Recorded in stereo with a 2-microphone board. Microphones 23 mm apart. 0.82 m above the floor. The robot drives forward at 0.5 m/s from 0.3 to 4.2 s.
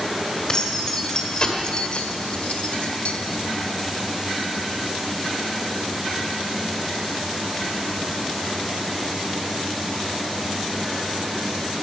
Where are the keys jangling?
30° left (ahead or behind), 2 m; by 3.1 s 65° left (ahead or behind), 1.2 m.